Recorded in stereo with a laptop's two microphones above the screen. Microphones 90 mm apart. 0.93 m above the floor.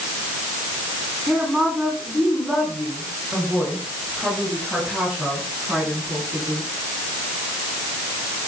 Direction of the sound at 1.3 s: 5° left (ahead or behind).